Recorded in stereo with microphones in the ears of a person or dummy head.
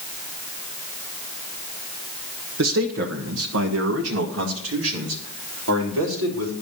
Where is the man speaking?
65° right (ahead or behind), 1.0 m; by 6.5 s 70° right (ahead or behind), 3.5 m.